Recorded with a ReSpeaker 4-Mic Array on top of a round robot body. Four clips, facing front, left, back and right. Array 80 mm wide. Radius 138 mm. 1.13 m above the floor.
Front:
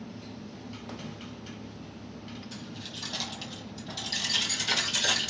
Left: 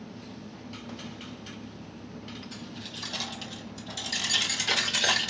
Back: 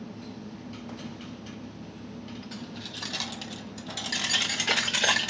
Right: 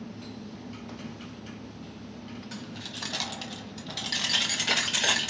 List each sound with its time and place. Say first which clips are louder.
2.5 s keys jangling: right 1 dB, back 2 dB; 115° right, 1.1 m; by 5.3 s 175° right, 1.7 m